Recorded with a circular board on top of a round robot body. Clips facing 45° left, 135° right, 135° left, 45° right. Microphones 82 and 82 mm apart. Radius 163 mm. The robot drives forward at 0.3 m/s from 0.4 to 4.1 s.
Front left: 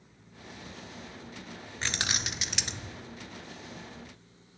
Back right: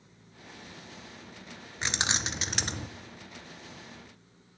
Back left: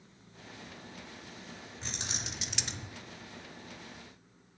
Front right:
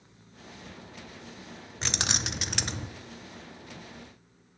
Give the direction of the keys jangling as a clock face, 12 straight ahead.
2 o'clock.